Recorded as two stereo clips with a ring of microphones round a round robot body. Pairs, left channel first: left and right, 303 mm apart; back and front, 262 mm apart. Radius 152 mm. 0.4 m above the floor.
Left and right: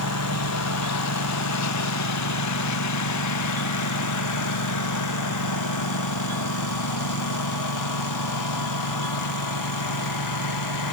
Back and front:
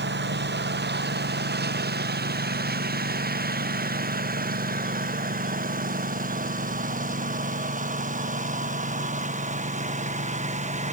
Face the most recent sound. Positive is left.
turn(degrees=65)